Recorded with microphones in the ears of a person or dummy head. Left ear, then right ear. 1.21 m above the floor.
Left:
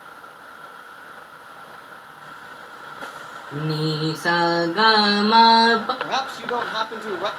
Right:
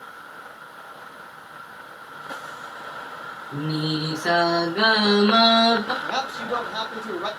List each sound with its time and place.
3.5 s singing: 30° left (ahead or behind), 0.7 m
6.0 s a man speaking: 25° left (ahead or behind), 0.5 m